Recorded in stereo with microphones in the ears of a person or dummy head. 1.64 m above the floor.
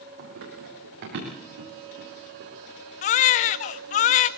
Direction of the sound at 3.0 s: 50° left (ahead or behind).